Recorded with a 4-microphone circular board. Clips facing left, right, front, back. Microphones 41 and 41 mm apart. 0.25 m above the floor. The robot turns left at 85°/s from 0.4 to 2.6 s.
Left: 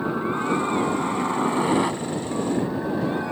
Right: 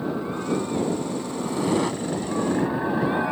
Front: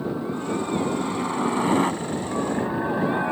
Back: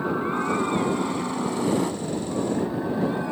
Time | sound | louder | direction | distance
0.0 | a helicopter | left 3 dB, back 3 dB | 140° left | ?